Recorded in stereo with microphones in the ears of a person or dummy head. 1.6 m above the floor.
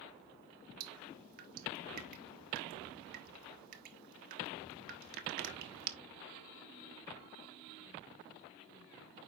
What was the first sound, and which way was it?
Dripping, 50° right (ahead or behind).